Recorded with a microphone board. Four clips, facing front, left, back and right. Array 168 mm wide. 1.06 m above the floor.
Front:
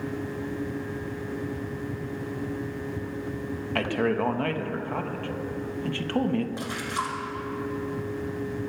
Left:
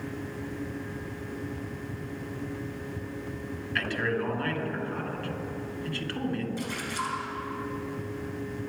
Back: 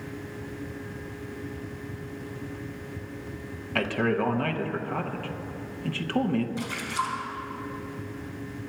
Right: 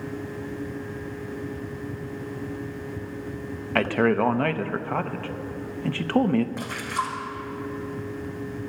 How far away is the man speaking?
About 0.9 m.